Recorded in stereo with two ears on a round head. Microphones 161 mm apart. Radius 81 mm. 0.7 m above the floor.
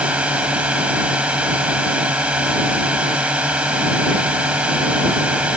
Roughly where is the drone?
Centre.